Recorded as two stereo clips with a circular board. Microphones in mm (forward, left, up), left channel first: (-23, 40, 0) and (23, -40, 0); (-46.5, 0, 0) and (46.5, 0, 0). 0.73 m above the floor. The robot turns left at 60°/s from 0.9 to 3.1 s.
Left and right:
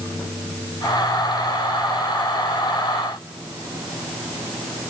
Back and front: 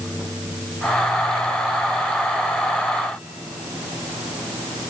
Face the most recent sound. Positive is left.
No sound to turn to.